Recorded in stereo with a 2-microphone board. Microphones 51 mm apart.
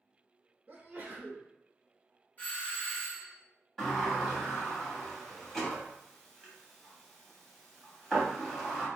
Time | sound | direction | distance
0.7 | a sneeze | 30° right (ahead or behind) | 0.5 m
2.4 | a doorbell | 35° left (ahead or behind) | 1.1 m
3.8 | a sliding door | 10° left (ahead or behind) | 1.2 m